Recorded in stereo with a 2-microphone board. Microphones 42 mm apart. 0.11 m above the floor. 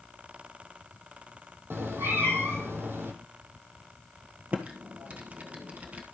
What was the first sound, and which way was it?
A cat meowing, 70° right (ahead or behind).